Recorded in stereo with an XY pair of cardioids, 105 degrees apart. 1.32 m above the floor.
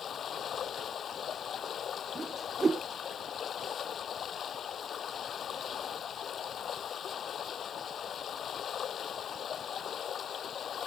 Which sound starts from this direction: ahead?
A whoosh, at 2.1 s.